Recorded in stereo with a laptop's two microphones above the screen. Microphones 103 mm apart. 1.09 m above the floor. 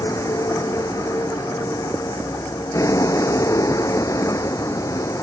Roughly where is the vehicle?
Left.